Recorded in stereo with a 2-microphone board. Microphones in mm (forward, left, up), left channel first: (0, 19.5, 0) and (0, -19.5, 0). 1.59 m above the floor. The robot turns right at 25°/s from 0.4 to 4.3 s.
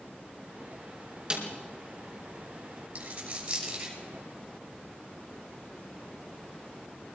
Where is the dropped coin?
30° right (ahead or behind), 6.5 m; by 4.0 s 5° right (ahead or behind), 6.5 m.